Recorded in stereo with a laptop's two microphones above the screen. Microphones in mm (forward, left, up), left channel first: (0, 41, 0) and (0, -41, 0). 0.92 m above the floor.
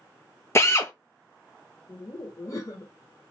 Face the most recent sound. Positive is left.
turn(degrees=45)  # may be behind; listen again after turning